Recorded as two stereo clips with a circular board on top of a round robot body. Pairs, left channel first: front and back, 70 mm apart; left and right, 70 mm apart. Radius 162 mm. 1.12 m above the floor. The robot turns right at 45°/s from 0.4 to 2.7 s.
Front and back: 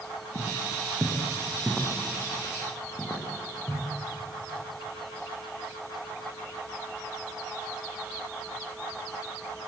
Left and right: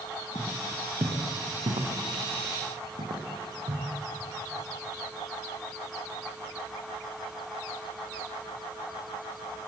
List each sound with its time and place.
0.3 s footsteps: 150° right, 4.5 m; by 3.9 s 75° right, 6 m